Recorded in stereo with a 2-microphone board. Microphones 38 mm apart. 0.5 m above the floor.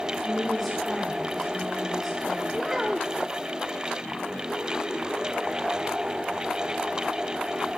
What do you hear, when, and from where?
0.2 s a woman speaking: 5° left (ahead or behind), 7.5 m
2.5 s a child speaking: 5° right (ahead or behind), 0.6 m